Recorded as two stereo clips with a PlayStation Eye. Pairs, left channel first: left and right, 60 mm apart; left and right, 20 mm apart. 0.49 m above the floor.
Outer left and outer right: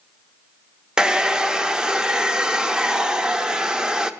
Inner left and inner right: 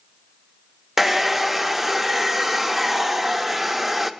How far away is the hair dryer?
About 0.5 m.